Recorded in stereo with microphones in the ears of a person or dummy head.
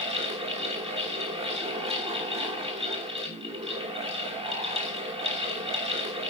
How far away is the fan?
About 1.1 m.